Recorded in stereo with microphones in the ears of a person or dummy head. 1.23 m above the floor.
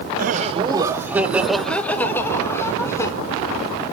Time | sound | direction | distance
0.1 | laughter | 50° right (ahead or behind) | 0.6 m